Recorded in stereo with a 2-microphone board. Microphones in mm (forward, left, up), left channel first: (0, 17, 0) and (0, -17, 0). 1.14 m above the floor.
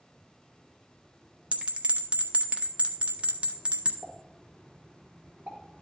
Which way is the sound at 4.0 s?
80° right.